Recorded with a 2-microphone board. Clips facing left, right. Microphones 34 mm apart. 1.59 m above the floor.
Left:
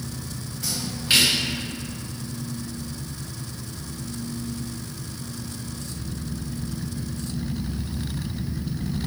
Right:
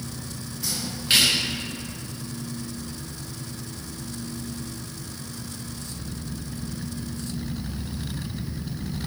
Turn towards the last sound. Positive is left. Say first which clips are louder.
# left 1 dB
turn(degrees=0)  # may be behind; listen again after turning